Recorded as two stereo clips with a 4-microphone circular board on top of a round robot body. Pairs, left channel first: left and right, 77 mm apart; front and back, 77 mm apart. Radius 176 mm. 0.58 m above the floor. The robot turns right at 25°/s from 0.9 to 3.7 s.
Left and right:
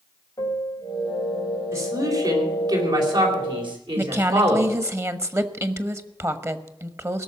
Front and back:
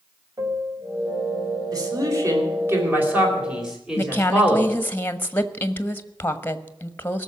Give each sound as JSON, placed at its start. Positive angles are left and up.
{"t": 0.4, "sound": "a piano", "azimuth_deg": 135, "distance_m": 2.5}
{"t": 1.7, "sound": "a man speaking", "azimuth_deg": -145, "distance_m": 4.5}
{"t": 4.0, "sound": "a woman speaking", "azimuth_deg": -55, "distance_m": 1.6}